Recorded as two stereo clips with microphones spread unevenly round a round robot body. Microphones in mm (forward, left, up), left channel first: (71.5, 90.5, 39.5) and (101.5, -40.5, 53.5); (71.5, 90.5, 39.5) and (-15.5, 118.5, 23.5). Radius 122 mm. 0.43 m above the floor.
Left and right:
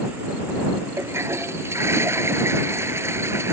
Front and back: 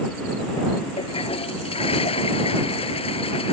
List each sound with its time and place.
1.0 s a toilet flushing: 5° right